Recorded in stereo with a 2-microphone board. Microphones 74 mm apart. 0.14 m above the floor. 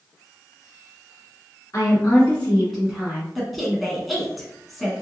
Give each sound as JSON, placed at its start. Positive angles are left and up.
{"t": 1.7, "sound": "a woman speaking", "side_deg": 40, "distance_m": 1.4}
{"t": 3.4, "sound": "a woman speaking", "side_deg": 0, "distance_m": 1.0}